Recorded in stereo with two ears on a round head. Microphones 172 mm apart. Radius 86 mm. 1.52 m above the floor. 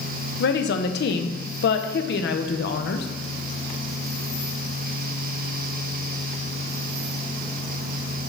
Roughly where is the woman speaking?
Left.